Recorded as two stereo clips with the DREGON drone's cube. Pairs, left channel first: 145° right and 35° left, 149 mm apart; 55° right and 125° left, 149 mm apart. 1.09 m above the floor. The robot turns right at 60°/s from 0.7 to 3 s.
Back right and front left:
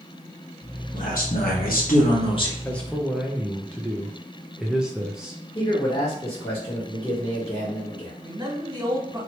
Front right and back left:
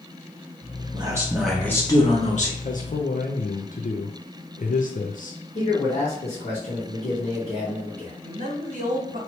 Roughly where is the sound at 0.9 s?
Behind.